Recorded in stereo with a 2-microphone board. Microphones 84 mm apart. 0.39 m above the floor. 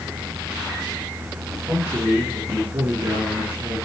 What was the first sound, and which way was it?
A man speaking, 20° right (ahead or behind).